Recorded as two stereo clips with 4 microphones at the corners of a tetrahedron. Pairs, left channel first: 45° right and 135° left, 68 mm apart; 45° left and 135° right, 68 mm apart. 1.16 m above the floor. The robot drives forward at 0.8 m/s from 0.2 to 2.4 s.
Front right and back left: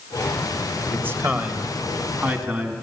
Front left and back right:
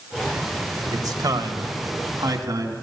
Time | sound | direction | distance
0.9 | a man speaking | 165° right | 1.3 m